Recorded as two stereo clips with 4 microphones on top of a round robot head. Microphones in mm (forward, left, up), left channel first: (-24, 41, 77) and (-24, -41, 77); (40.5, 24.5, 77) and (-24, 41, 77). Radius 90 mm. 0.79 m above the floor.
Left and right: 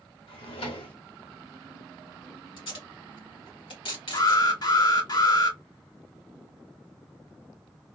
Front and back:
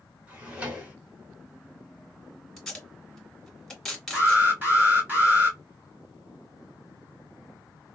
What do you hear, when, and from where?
0.3 s a drawer: 95° left, 1.1 m
2.6 s tape being pulled: 70° left, 2.0 m
4.1 s an alarm: 105° left, 2.5 m